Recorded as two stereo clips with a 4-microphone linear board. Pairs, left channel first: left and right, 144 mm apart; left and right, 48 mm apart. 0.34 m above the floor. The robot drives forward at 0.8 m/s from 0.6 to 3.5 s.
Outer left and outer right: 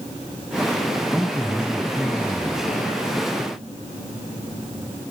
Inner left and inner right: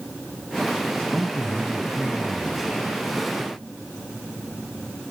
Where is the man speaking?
Centre (ahead or behind), 1.4 m.